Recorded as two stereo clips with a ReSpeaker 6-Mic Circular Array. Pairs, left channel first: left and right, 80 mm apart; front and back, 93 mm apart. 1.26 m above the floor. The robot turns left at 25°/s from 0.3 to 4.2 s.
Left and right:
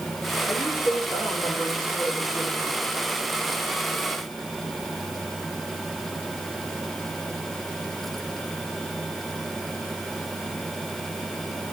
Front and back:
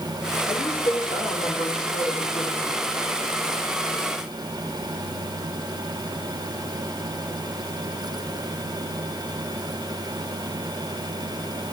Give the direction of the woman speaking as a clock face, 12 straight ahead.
11 o'clock.